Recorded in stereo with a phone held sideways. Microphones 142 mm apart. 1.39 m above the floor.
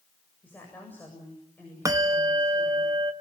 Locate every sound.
0.4 s a woman speaking: 15° left (ahead or behind), 7.5 m
1.9 s a bell: 25° right (ahead or behind), 1.0 m